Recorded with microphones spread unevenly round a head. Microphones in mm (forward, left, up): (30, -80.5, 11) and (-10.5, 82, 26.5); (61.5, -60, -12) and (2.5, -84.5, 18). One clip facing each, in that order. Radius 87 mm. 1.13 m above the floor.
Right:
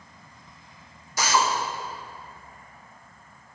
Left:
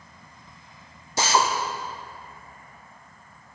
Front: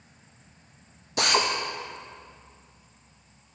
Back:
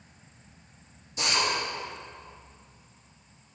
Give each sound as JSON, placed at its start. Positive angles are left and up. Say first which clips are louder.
{"t": 1.2, "sound": "a drill", "louder": "left 1 dB, front 4 dB", "azimuth_deg": 40, "distance_m": 0.8}